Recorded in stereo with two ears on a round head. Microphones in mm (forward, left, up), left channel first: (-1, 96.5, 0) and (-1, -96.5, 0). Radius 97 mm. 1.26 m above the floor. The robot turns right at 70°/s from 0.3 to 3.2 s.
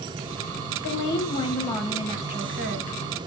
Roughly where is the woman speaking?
Left.